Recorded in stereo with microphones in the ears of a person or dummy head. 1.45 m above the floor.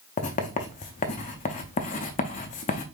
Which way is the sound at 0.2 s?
30° left (ahead or behind).